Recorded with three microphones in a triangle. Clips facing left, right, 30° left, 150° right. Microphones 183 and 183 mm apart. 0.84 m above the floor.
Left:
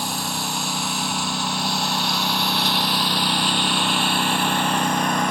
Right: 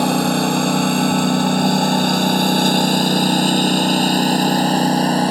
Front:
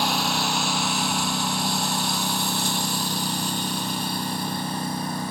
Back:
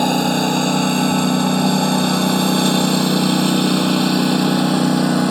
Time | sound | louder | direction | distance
0.0 | a lawn mower | right 13 dB, back 10 dB | 115° right | ?